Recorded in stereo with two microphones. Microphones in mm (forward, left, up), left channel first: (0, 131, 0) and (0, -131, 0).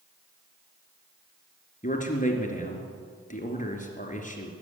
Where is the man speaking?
30° left (ahead or behind), 3 m.